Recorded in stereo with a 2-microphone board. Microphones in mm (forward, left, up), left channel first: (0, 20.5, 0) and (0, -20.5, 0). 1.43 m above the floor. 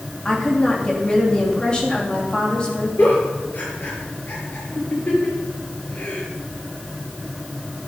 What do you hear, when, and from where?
0.2 s a woman speaking: 20° left (ahead or behind), 3 m
3.0 s a giggle: 45° left (ahead or behind), 5 m